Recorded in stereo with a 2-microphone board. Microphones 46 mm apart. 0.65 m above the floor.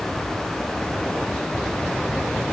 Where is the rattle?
No rattle in this recording.